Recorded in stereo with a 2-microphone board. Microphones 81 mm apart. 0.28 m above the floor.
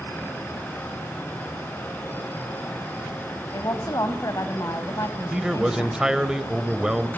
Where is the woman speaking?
45° left (ahead or behind), 1.7 m.